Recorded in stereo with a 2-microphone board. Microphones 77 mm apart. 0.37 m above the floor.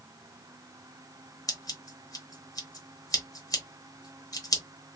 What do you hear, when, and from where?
1.5 s scissors: 50° left (ahead or behind), 1.2 m